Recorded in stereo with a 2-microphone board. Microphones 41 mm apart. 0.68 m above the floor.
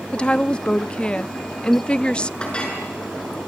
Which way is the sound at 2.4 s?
20° left (ahead or behind).